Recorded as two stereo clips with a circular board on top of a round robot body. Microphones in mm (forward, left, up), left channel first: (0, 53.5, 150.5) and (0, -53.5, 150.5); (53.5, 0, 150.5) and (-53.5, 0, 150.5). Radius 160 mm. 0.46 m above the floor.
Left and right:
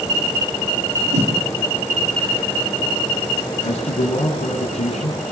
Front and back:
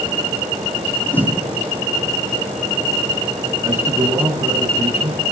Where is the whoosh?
75° right, 8.5 m.